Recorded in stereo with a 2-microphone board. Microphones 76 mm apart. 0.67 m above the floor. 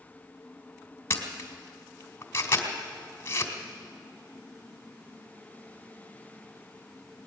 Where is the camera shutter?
30° left (ahead or behind), 2 m.